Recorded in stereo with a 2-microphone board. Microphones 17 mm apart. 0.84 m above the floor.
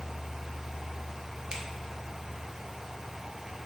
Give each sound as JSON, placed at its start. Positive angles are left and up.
{"t": 1.5, "sound": "a finger snap", "side_deg": -50, "distance_m": 0.7}